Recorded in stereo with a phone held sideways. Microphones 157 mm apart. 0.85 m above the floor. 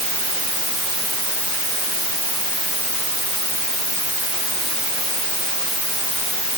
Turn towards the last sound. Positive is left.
No sound to turn to.